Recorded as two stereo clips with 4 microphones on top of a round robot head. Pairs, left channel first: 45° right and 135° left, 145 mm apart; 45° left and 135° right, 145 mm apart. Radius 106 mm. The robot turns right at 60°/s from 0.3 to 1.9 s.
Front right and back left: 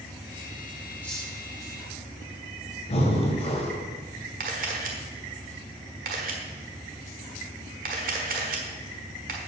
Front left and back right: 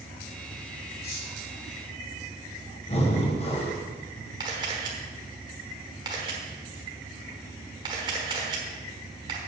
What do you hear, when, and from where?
1.0 s cutlery clinking: 35° left, 4.5 m; by 1.3 s 50° left, 4.5 m
2.9 s breathing: straight ahead, 1.9 m
4.4 s a camera shutter: 165° left, 1.2 m